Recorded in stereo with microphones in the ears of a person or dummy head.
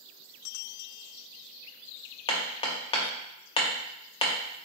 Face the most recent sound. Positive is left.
turn(degrees=30)  # may be behind; listen again after turning